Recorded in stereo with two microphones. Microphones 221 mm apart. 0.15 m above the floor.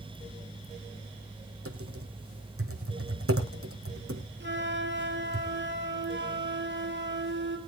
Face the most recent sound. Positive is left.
turn(degrees=-55)  # may be behind; listen again after turning